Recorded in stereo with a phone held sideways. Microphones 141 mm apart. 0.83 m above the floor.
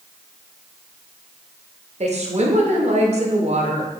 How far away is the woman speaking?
About 0.8 m.